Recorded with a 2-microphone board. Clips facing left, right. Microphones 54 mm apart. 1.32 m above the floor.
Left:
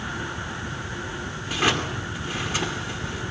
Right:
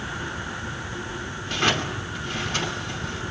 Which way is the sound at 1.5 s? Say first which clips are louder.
Even; 10° left (ahead or behind).